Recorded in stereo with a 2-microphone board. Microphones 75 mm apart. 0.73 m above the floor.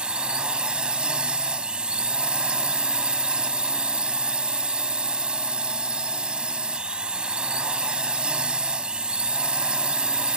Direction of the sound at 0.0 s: 15° right (ahead or behind).